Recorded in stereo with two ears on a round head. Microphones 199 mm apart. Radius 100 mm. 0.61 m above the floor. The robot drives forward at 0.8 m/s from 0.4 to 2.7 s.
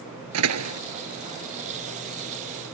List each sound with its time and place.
0.3 s a door slam: 85° right; by 0.8 s 80° right